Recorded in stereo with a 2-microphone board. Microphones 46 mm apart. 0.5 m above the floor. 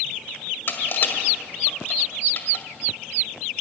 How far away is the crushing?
About 1.9 m.